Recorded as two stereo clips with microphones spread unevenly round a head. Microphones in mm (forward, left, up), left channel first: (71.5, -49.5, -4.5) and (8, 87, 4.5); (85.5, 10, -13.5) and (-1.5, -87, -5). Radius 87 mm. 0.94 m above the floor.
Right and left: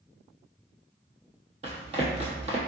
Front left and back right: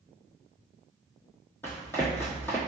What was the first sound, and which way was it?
Running footsteps, 120° left.